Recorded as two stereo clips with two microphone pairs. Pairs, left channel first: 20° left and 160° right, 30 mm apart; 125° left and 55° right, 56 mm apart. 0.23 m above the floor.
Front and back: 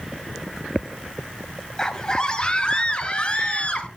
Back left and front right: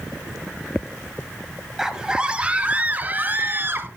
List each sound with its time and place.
1.8 s a scream: 10° left, 1.6 m; by 3.9 s 20° right, 2.5 m